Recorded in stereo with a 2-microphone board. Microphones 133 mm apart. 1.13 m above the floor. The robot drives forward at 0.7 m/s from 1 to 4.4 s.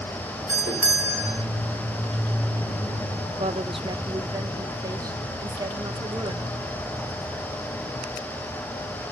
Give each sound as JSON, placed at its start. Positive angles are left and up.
{"t": 0.5, "sound": "a doorbell", "side_deg": -30, "distance_m": 4.0}
{"t": 3.4, "sound": "a woman speaking", "side_deg": -55, "distance_m": 0.6}